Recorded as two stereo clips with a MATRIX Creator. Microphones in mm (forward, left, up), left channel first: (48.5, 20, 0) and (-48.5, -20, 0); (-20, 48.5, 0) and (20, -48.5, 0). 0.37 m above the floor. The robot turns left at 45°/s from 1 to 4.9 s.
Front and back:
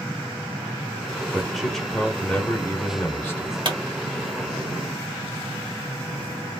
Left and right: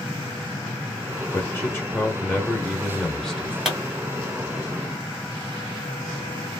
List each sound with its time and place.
1.3 s a man speaking: 120° left, 0.8 m; by 3.5 s 20° left, 0.8 m
3.6 s a pop: 150° right, 1.7 m; by 3.8 s 160° right, 1.7 m